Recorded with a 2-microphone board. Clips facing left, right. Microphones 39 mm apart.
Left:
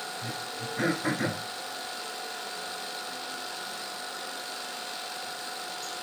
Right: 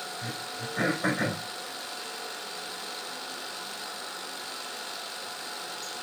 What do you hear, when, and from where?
0.2 s throat clearing: 70° right (ahead or behind), 5.5 m